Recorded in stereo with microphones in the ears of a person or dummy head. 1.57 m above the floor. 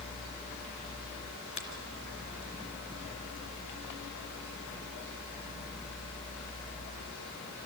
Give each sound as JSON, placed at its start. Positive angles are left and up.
{"t": 1.6, "sound": "a finger snap", "side_deg": 30, "distance_m": 2.0}